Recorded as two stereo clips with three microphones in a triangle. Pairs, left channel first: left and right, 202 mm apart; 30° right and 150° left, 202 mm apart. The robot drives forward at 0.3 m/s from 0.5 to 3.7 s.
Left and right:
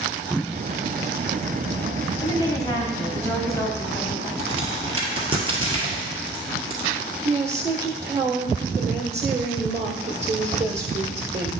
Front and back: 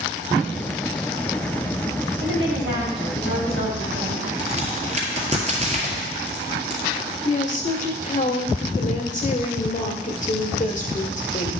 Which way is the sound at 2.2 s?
160° left.